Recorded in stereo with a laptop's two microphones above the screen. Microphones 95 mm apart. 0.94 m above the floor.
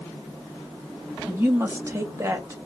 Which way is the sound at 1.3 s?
25° right (ahead or behind).